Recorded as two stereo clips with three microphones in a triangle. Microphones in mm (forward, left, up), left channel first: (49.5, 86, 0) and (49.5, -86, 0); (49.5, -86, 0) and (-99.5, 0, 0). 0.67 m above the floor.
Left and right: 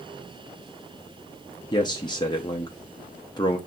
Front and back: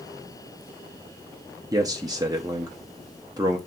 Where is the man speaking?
115° left, 0.5 m.